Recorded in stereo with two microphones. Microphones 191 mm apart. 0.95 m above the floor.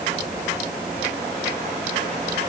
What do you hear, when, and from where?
Only background noise.